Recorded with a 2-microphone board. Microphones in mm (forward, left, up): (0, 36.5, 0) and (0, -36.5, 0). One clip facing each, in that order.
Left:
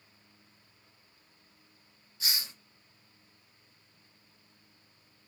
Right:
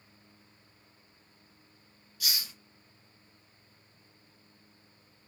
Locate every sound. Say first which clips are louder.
2.2 s a hiss: even; 25° left (ahead or behind), 1.1 m